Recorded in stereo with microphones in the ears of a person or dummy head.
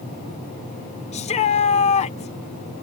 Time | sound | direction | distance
1.1 | a shout | 30° left (ahead or behind) | ?